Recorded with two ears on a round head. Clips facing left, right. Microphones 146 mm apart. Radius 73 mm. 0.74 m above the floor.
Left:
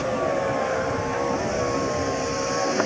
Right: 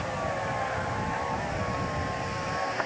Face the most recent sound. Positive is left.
turn(degrees=55)  # may be behind; listen again after turning